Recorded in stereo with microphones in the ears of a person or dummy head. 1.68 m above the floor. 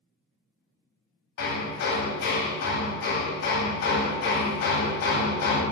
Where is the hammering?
60° left (ahead or behind), 0.9 m.